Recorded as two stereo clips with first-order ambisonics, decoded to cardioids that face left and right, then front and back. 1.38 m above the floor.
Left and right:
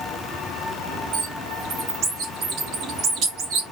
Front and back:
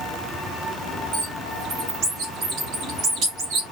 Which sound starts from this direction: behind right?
A bird, at 1.1 s.